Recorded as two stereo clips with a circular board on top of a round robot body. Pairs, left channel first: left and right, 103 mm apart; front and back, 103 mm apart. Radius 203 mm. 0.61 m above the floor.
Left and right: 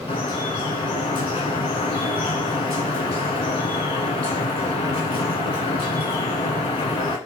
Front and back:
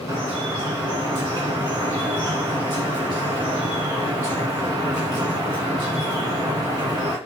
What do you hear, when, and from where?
0.1 s dripping: 130° left, 1.7 m